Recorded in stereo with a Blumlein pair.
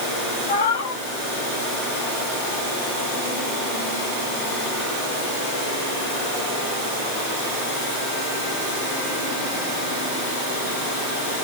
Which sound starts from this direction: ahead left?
A cat meowing, at 0.5 s.